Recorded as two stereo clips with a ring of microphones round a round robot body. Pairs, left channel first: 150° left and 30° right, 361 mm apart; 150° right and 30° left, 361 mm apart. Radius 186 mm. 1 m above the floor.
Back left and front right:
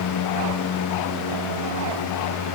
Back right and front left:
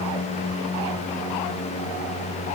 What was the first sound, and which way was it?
Only background noise.